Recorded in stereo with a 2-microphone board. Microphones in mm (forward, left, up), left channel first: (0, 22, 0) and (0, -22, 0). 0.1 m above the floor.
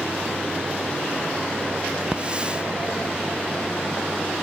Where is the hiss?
25° right (ahead or behind).